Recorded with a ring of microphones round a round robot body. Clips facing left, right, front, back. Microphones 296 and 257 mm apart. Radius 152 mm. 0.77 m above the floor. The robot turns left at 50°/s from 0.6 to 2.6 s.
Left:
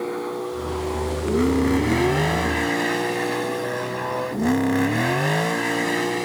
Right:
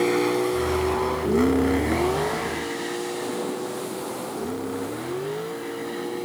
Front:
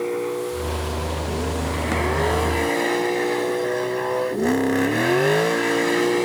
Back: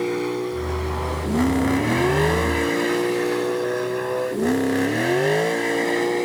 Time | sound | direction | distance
0.0 | a vehicle | 130° right | ?